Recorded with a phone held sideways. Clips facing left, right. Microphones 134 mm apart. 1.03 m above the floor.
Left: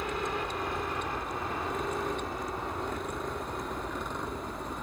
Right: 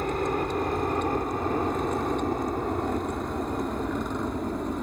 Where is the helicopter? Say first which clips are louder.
Right 6 dB; 45° right (ahead or behind); by 4.8 s 50° right (ahead or behind).